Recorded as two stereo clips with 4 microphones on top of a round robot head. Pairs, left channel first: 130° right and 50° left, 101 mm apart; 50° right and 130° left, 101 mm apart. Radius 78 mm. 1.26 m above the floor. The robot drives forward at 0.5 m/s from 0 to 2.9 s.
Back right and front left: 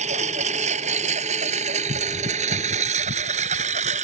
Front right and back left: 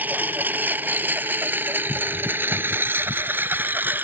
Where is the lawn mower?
55° left; by 4.0 s 60° left.